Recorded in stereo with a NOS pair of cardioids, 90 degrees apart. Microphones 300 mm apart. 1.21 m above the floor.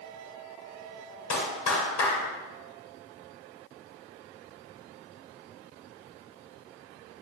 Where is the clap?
60° left, 3 m.